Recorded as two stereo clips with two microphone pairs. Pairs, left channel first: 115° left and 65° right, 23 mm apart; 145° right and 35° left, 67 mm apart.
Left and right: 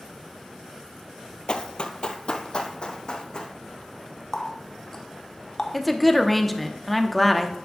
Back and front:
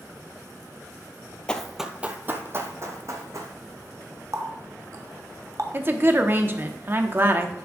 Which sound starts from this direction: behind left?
Running footsteps, at 1.5 s.